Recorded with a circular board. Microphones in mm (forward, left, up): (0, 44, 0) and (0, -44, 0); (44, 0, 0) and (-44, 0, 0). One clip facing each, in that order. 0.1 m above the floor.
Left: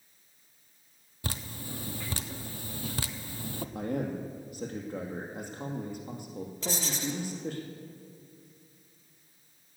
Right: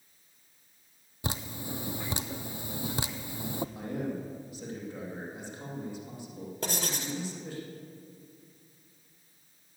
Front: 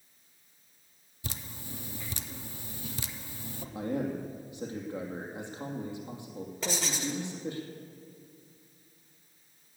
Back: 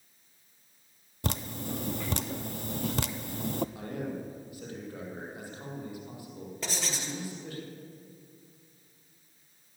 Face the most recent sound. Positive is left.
turn(degrees=-90)